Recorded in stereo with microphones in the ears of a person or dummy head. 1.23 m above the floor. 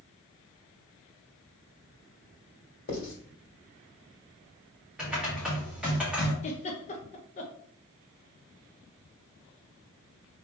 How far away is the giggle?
About 0.7 m.